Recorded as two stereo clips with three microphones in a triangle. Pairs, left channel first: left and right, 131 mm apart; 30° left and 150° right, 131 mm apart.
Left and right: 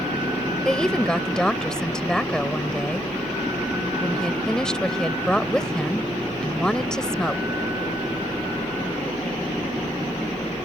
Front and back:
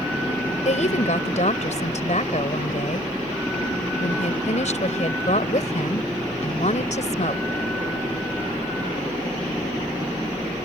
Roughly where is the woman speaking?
Ahead.